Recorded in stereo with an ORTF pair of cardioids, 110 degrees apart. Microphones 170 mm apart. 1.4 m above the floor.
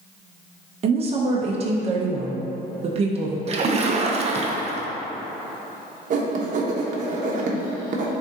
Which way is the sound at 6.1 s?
50° right.